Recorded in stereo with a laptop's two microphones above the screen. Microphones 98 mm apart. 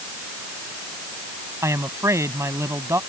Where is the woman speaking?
30° right (ahead or behind).